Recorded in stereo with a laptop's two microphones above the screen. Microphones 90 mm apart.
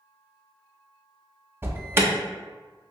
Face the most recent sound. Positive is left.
turn(degrees=-25)  # may be behind; listen again after turning